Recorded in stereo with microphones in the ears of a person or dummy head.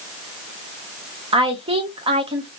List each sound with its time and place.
1.3 s a woman speaking: 40° right (ahead or behind), 0.8 m